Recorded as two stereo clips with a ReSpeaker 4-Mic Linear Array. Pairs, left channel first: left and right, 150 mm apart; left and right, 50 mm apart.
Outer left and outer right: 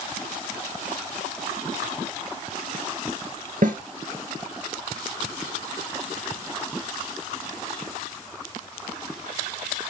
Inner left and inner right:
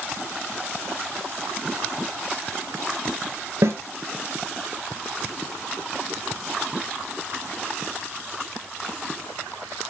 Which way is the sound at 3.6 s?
65° right (ahead or behind).